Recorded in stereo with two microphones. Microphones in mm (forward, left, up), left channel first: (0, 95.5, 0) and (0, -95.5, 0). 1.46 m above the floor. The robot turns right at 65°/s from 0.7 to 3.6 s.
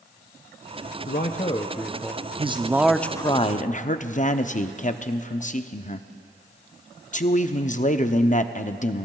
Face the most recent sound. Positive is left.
turn(degrees=45)